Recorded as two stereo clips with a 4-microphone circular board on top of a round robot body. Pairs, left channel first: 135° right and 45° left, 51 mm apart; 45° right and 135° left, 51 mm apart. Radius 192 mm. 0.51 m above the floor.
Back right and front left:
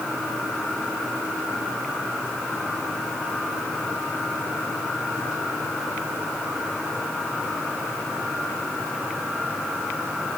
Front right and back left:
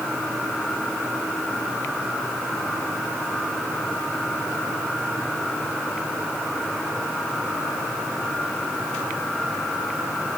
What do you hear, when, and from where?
Only background noise.